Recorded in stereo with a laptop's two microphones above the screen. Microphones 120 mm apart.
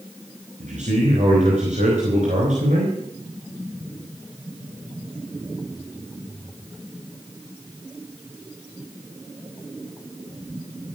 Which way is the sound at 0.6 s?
85° right.